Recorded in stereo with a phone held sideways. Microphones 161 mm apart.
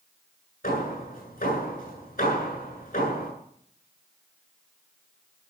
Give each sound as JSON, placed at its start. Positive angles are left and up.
{"t": 0.6, "sound": "hammering", "side_deg": 65, "distance_m": 9.5}